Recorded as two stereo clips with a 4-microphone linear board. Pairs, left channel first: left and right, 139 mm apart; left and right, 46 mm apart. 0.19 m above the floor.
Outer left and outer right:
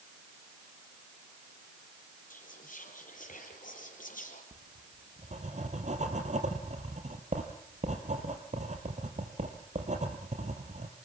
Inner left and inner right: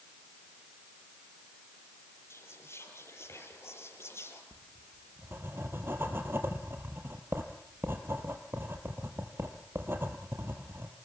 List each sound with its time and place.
2.3 s whispering: 75° left (ahead or behind), 5.5 m
4.5 s writing: 55° right (ahead or behind), 3 m